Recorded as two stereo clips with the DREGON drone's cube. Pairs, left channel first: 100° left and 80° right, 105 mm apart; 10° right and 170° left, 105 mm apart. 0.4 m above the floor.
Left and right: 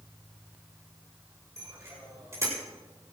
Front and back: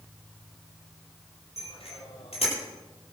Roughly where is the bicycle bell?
Ahead.